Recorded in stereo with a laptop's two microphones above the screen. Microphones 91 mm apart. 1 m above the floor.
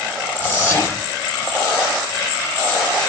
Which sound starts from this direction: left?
Whispering, at 0.4 s.